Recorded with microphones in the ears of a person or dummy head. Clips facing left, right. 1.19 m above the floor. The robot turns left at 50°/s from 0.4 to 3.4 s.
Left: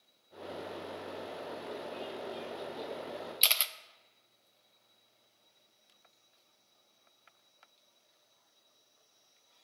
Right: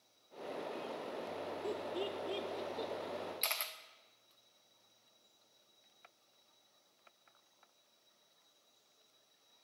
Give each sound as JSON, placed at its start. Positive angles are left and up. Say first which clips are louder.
{"t": 1.6, "sound": "laughter", "louder": "right 2 dB", "side_deg": -60, "distance_m": 0.7}
{"t": 3.4, "sound": "a camera shutter", "louder": "left 3 dB", "side_deg": 35, "distance_m": 0.5}